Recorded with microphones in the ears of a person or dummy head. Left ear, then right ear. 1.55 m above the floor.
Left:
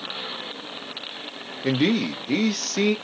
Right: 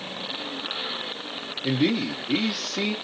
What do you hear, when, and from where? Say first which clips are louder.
1.6 s a man speaking: left 2 dB; 50° left (ahead or behind), 0.7 m